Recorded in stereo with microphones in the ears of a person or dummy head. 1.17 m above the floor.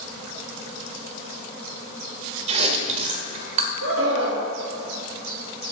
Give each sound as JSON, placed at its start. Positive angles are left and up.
{"t": 2.5, "sound": "chewing", "side_deg": -35, "distance_m": 1.1}
{"t": 3.8, "sound": "a scream", "side_deg": -75, "distance_m": 1.8}